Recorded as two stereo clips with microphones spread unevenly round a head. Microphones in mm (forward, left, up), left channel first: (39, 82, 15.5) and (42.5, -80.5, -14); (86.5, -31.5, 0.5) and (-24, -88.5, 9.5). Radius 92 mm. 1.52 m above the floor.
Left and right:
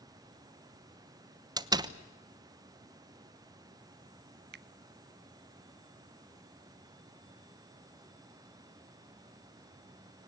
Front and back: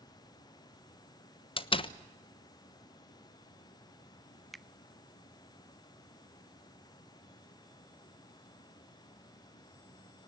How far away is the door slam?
About 1.2 m.